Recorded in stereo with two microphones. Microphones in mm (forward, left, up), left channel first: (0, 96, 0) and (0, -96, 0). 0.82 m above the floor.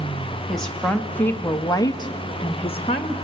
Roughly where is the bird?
No bird in this recording.